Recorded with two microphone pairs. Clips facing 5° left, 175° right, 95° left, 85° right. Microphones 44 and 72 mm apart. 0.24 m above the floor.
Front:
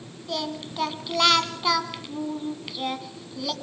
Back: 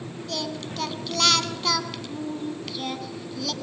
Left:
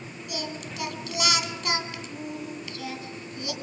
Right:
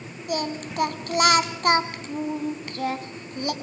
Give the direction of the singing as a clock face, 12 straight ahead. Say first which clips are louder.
Front 2 dB, right 8 dB; 2 o'clock.